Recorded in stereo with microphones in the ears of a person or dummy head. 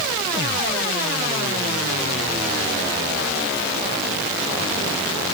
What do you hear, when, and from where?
Only background noise.